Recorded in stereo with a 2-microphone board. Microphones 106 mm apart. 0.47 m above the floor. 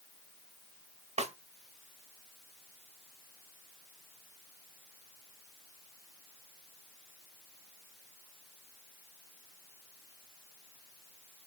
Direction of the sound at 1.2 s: 75° right (ahead or behind).